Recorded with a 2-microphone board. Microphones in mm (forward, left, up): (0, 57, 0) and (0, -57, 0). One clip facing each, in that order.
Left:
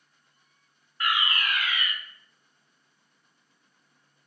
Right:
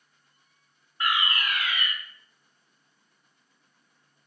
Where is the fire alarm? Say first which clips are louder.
Right 1 dB; 25° right (ahead or behind), 1.6 m.